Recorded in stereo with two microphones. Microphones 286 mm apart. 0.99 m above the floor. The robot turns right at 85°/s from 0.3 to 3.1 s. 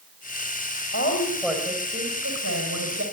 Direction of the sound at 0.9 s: 130° left.